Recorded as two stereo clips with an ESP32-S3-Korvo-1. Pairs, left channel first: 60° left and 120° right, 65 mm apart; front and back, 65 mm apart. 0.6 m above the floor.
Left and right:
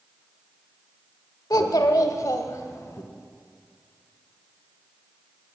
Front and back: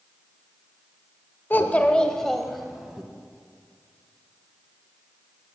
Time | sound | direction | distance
1.5 | a child speaking | 55° left | 1.1 m